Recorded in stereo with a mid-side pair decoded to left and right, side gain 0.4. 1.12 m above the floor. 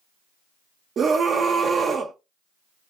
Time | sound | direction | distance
1.0 | a scream | 55° right | 0.5 m